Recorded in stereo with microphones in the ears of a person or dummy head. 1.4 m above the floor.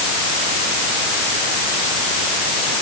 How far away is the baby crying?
No baby crying in this recording.